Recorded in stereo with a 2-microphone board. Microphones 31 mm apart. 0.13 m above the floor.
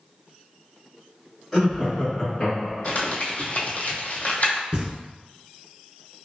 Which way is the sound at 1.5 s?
Centre (ahead or behind).